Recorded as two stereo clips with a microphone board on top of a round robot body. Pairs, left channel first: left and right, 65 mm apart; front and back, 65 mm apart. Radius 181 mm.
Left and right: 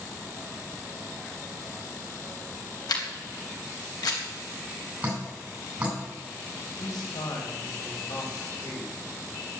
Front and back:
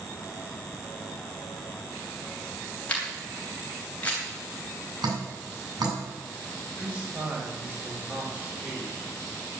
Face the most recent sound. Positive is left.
turn(degrees=110)